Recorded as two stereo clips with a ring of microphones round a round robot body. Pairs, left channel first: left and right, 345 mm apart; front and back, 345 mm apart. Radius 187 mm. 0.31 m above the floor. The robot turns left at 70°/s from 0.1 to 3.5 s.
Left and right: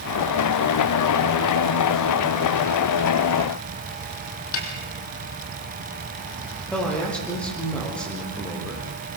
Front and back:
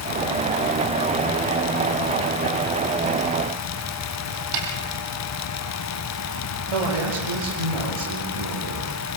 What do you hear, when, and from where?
4.5 s a snare drum: 140° left, 4 m
6.7 s a man speaking: 175° left, 8.5 m